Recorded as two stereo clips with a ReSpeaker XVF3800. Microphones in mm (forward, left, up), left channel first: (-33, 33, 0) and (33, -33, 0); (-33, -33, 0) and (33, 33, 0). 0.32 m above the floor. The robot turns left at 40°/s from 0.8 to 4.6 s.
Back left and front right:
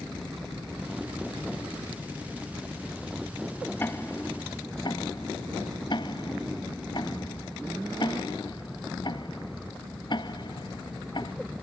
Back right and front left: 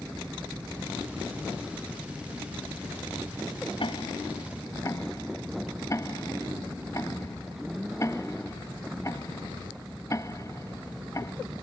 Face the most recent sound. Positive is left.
turn(degrees=170)